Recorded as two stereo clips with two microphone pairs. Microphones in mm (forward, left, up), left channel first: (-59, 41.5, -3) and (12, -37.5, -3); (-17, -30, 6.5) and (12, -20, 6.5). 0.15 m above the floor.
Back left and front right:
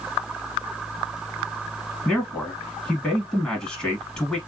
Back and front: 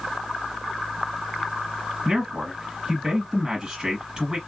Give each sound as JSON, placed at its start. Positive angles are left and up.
{"t": 2.0, "sound": "a man speaking", "azimuth_deg": 60, "distance_m": 1.2}